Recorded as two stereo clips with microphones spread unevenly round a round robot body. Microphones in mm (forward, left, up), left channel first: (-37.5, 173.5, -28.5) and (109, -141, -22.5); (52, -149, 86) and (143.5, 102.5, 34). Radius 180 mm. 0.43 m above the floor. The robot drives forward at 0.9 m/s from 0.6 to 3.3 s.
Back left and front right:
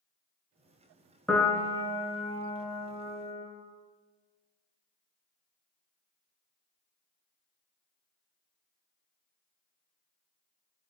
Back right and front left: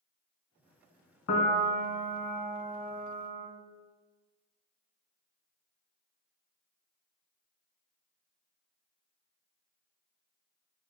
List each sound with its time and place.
1.3 s a piano: 155° right, 0.6 m; by 3.5 s 175° right, 2.5 m